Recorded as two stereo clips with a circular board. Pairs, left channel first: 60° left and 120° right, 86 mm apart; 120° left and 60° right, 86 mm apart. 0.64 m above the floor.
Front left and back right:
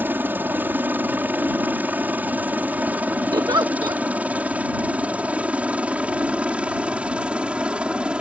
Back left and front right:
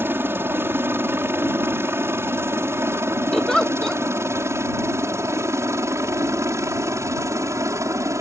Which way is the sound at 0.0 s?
85° right.